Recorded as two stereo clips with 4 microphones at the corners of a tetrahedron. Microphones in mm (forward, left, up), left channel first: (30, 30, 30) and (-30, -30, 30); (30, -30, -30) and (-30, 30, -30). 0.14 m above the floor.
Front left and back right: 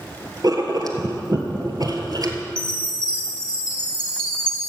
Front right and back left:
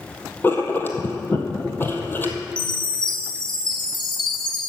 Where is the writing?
105° right, 1.6 m.